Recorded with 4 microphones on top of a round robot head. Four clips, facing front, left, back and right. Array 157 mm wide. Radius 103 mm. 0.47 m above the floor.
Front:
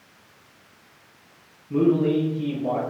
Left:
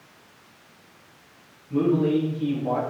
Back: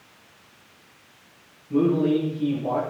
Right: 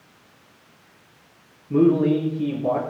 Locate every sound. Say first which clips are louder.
1.7 s a man speaking: right 4 dB, front 1 dB; 85° right, 9.5 m